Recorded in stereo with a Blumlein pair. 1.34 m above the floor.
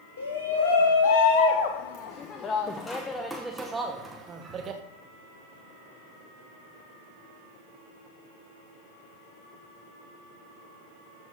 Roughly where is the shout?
Ahead left.